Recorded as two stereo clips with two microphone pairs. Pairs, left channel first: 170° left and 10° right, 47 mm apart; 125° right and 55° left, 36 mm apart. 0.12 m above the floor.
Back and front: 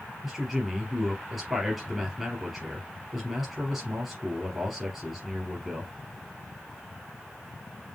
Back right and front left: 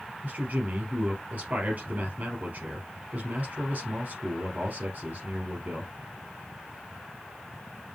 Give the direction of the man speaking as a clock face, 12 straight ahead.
10 o'clock.